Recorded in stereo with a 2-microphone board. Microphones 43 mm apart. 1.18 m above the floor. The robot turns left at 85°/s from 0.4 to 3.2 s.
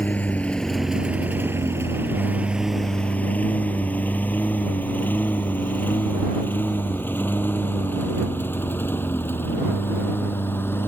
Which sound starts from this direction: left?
A lawn mower, at 0.0 s.